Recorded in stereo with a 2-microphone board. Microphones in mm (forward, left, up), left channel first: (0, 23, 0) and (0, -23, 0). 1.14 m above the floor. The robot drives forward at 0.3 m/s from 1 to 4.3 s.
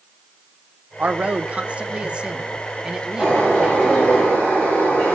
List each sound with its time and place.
1.0 s a man speaking: 35° right (ahead or behind), 0.6 m; by 4.2 s 15° right (ahead or behind), 1.4 m
3.2 s a bird: 25° left (ahead or behind), 6.5 m